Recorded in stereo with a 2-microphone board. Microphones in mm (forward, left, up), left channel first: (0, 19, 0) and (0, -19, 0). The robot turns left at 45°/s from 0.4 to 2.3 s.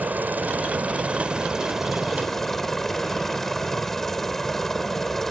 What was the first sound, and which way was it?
A helicopter, 105° right.